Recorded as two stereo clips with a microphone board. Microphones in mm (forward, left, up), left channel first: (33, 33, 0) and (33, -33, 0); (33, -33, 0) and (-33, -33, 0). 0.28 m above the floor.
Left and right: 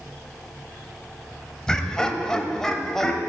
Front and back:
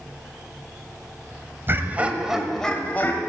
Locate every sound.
1.7 s laughter: 165° left, 1.5 m; by 3.2 s 10° left, 1.5 m